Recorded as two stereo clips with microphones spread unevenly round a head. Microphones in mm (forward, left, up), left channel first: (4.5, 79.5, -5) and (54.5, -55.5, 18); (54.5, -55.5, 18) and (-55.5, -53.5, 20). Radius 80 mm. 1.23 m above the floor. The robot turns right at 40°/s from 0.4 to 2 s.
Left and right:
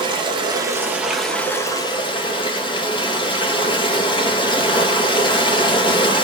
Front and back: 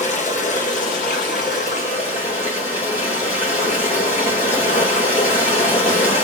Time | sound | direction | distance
0.0 | running water | 10° right | 1.3 m